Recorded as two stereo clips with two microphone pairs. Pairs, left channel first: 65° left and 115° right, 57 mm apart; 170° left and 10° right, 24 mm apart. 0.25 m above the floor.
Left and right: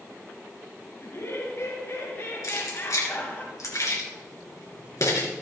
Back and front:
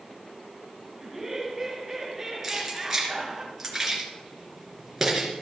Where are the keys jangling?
75° left, 2.5 m.